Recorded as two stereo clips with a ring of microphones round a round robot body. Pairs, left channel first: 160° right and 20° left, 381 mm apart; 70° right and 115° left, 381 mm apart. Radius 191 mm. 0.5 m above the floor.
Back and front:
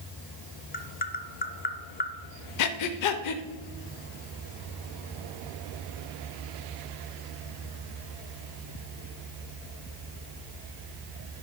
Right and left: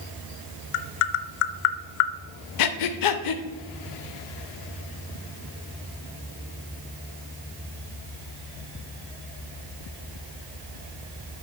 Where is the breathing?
110° right, 0.5 m.